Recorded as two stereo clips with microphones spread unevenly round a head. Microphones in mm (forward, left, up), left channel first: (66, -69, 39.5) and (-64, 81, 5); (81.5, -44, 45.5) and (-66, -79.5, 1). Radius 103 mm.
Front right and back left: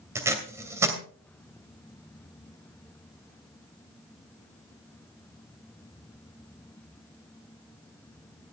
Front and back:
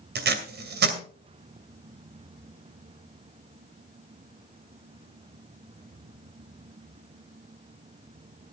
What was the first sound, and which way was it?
Tape being pulled, 150° right.